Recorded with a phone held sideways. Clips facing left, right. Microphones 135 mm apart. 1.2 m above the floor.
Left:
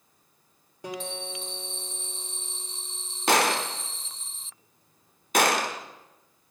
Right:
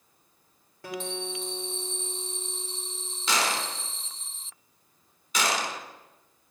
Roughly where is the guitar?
Centre.